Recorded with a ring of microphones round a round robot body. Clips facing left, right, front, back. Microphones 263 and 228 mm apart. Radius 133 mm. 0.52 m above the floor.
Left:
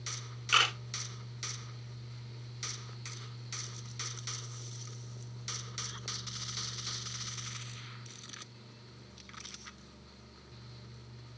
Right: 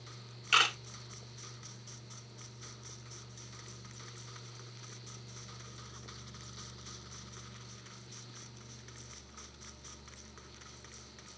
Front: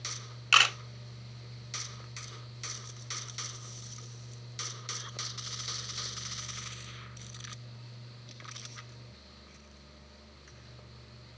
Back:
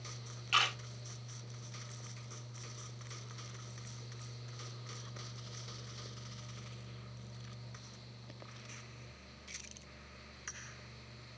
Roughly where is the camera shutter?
Ahead.